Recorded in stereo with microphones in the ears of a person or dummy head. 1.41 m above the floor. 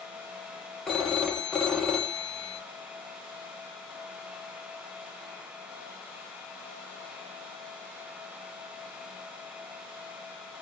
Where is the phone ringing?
Centre (ahead or behind), 0.6 m.